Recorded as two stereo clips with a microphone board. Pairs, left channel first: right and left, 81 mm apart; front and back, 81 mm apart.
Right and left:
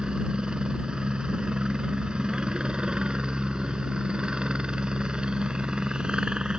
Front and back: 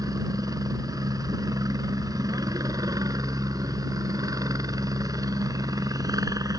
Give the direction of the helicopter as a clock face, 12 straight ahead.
6 o'clock.